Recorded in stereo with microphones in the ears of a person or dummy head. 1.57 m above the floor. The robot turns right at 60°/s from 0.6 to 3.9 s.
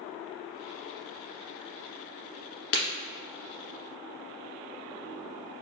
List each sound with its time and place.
2.7 s breaking glass: 60° left (ahead or behind), 1.5 m